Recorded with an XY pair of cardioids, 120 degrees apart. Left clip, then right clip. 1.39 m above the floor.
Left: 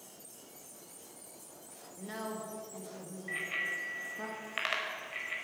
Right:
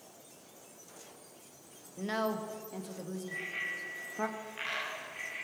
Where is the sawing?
No sawing in this recording.